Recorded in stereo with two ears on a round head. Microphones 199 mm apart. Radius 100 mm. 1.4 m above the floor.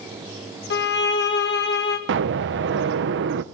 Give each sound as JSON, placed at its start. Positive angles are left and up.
{"t": 0.7, "sound": "a violin", "side_deg": 50, "distance_m": 2.0}
{"t": 2.1, "sound": "an explosion", "side_deg": -50, "distance_m": 0.8}